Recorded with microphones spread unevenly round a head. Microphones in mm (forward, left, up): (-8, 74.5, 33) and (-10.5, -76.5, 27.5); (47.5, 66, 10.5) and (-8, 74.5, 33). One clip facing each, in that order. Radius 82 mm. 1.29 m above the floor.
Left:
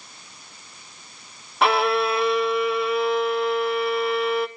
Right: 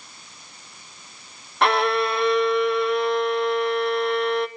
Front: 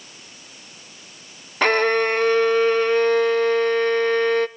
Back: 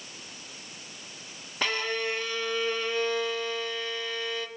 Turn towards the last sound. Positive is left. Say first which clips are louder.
# even, front 12 dB
turn(degrees=0)